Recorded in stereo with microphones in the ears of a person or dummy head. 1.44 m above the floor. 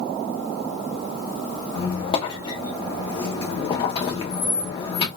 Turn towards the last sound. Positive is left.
turn(degrees=30)  # may be behind; listen again after turning